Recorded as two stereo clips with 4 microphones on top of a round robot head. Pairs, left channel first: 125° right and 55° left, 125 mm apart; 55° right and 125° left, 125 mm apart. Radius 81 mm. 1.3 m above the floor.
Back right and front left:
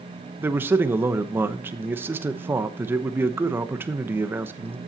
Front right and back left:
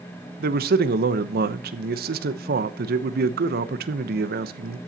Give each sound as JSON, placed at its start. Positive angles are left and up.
{"t": 0.4, "sound": "a man speaking", "azimuth_deg": 130, "distance_m": 1.0}